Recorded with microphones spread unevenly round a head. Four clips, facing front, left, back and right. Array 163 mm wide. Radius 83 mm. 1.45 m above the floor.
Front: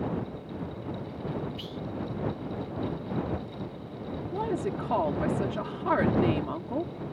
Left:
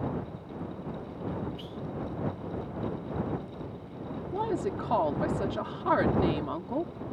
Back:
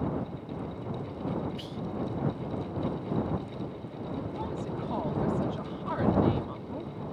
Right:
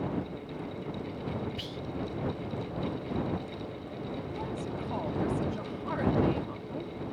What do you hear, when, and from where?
1.6 s whispering: 95° right
4.3 s a woman speaking: 35° left